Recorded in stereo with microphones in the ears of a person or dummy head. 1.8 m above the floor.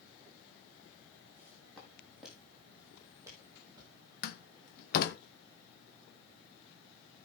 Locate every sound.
1.4 s footsteps: 15° left (ahead or behind), 4 m; by 4.0 s 15° right (ahead or behind), 5 m
4.2 s a door slam: 55° left (ahead or behind), 1.1 m